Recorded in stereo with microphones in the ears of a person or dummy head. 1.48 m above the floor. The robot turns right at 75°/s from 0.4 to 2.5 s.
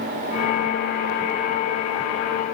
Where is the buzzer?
No buzzer in this recording.